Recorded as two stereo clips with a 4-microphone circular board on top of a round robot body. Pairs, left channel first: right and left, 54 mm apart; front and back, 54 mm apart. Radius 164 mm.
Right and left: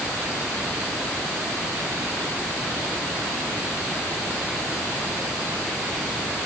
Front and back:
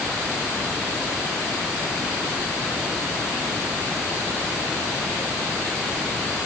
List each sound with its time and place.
Only background noise.